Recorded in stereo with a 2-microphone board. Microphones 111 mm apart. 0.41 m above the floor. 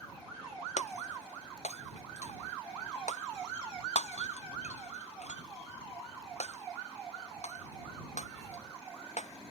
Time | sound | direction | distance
0.8 | breaking glass | 90° left | ?